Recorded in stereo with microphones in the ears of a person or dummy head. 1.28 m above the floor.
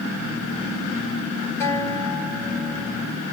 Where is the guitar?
15° left (ahead or behind), 2.5 m.